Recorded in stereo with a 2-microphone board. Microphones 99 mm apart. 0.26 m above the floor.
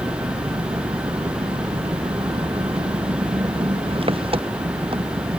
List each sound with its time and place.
0.0 s an engine running: 65° right (ahead or behind)